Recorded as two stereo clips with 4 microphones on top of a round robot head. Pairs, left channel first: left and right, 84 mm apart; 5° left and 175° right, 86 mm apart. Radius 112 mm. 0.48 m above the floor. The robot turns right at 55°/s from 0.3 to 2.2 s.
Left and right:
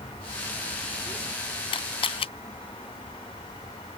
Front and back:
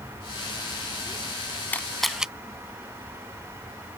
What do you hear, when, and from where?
1.7 s a camera shutter: 75° left; by 2.3 s 100° left